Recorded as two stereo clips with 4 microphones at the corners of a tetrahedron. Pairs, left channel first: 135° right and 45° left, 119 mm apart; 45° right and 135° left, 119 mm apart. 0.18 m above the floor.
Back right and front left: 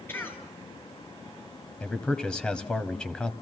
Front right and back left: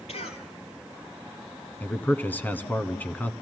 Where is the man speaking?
65° right, 1.0 m.